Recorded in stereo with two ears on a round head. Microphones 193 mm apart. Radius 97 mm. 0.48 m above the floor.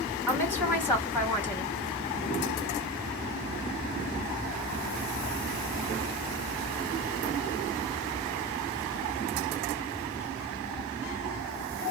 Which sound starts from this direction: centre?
A woman speaking, at 0.3 s.